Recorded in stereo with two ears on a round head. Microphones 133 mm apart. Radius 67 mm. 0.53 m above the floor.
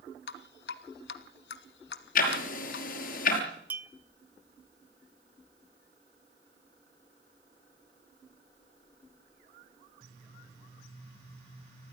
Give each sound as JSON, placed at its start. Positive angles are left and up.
{"t": 0.3, "sound": "dripping", "side_deg": 80, "distance_m": 1.2}
{"t": 2.1, "sound": "ticking", "side_deg": 60, "distance_m": 5.5}
{"t": 3.7, "sound": "a clink", "side_deg": -10, "distance_m": 1.0}